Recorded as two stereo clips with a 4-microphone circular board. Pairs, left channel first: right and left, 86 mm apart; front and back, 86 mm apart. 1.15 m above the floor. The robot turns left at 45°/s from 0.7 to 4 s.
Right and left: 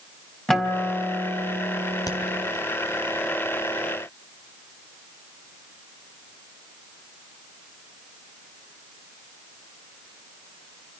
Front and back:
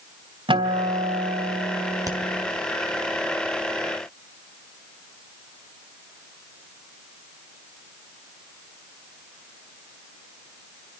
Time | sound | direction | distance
0.5 | a guitar | 175° right | 3 m
2.1 | a crack | 135° right | 3 m